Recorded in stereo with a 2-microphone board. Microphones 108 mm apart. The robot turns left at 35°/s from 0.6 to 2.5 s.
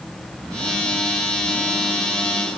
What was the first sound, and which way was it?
Only background noise.